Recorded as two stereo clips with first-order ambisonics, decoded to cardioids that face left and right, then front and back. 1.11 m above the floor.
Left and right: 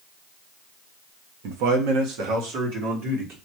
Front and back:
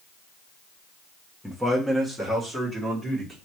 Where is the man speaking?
90° right, 1.0 m; by 3.4 s 105° right, 2.5 m.